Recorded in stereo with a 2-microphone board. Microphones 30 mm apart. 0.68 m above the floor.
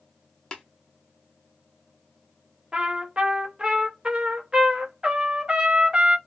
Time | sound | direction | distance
0.5 | tapping | 30° left (ahead or behind) | 0.7 m
2.7 | a trumpet | 30° right (ahead or behind) | 0.6 m